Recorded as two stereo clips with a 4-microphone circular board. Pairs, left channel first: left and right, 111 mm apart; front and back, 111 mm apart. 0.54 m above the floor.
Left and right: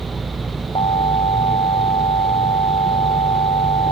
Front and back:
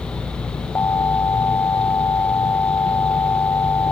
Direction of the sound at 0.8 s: 65° left.